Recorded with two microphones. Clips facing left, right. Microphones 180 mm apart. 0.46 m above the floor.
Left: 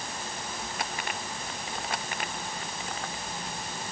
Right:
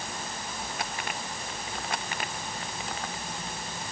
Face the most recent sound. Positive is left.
No sound to turn to.